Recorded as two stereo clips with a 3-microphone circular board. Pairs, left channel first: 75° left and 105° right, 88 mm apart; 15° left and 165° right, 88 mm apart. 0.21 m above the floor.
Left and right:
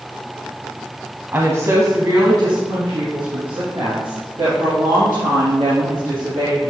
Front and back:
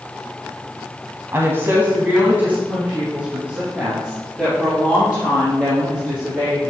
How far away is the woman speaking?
About 1.1 m.